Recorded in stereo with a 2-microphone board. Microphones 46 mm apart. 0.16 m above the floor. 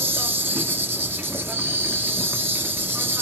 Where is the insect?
50° right (ahead or behind), 1.4 m.